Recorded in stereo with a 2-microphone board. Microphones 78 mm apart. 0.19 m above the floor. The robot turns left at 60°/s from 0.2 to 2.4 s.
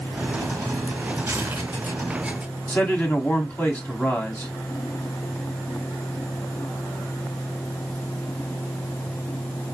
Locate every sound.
1.3 s tearing paper: 30° right (ahead or behind), 2 m; by 1.7 s 10° right (ahead or behind), 2 m
2.7 s a man speaking: 20° left (ahead or behind), 1.6 m